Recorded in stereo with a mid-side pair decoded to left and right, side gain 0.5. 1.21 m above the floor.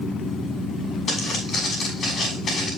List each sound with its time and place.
1.1 s footsteps: 55° left, 6 m